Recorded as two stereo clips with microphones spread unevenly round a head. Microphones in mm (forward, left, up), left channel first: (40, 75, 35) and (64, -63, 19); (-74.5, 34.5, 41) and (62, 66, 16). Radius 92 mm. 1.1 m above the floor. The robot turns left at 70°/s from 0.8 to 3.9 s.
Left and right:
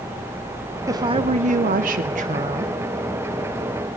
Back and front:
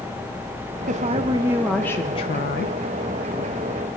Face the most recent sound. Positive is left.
turn(degrees=135)